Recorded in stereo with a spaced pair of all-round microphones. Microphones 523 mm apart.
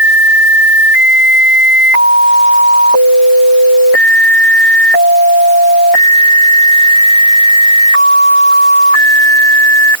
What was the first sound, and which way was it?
Only background noise.